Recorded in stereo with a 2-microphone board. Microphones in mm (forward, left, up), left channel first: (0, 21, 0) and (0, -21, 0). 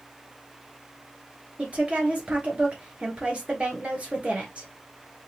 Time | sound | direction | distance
1.6 | a woman speaking | 35° right (ahead or behind) | 1.6 m